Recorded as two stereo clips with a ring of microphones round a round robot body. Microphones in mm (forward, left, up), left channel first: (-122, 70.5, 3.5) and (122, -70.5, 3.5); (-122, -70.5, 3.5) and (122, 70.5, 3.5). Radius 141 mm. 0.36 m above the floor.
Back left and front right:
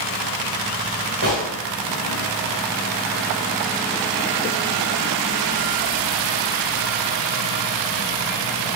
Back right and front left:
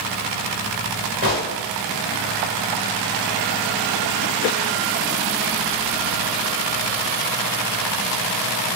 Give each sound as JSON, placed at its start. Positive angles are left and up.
{"t": 1.2, "sound": "a gunshot", "azimuth_deg": -20, "distance_m": 2.0}